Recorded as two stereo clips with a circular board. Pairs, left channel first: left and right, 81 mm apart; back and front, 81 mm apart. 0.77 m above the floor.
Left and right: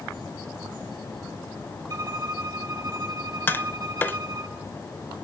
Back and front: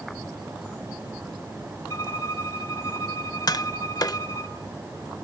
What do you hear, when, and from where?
1.9 s a violin: 135° right, 4.5 m
3.5 s tapping: 150° left, 0.7 m